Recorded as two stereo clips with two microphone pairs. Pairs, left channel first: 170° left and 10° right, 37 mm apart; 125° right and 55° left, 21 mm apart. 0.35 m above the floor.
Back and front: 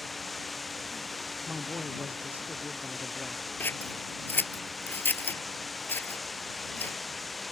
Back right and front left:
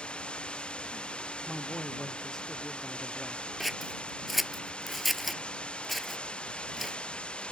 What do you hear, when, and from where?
0.0 s running water: 105° right
1.4 s a man speaking: 60° right
3.6 s scissors: 140° left